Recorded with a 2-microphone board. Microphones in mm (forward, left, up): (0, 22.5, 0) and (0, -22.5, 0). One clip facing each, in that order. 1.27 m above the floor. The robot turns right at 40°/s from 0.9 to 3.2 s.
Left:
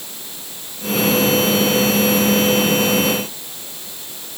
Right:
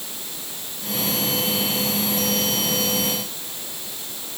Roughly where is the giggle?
I don't hear a giggle.